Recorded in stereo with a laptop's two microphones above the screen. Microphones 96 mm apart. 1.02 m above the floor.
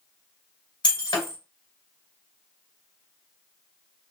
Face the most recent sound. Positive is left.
turn(degrees=55)  # may be behind; listen again after turning